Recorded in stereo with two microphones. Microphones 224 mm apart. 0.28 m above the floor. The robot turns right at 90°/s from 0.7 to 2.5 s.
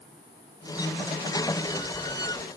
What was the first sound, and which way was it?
Only background noise.